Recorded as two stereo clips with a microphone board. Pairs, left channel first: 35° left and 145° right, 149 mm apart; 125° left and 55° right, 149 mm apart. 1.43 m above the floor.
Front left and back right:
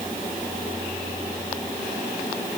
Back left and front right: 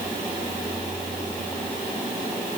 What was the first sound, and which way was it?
Only background noise.